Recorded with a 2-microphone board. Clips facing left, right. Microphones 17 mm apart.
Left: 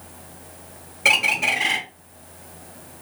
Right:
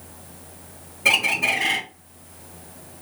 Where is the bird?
25° left (ahead or behind), 1.4 m.